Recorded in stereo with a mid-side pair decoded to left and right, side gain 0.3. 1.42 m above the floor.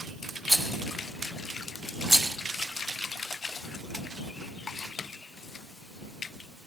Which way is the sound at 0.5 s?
10° right.